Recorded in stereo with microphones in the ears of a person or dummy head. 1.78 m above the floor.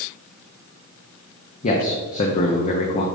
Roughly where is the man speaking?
Left.